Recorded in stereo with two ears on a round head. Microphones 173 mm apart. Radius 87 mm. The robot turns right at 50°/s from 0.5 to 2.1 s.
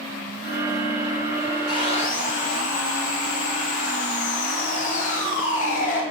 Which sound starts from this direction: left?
Sawing, at 1.7 s.